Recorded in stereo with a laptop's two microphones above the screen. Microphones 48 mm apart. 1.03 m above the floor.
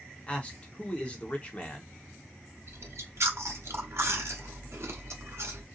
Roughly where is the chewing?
Right.